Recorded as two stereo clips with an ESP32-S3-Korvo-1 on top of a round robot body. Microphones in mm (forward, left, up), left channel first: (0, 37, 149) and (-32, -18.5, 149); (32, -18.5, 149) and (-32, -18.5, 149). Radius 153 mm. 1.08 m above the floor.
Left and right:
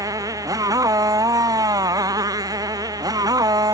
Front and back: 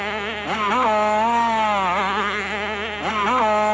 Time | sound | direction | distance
0.0 | a motorcycle | 90° right | ?